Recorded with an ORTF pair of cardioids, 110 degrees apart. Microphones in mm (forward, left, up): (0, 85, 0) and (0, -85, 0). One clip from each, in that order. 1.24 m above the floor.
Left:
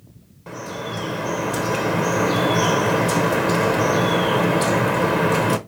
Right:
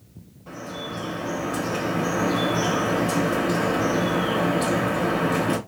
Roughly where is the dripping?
Ahead left.